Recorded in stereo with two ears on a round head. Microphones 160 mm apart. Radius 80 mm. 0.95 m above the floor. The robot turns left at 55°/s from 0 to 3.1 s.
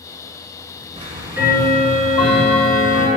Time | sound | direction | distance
1.0 | ticking | 140° right | 1.6 m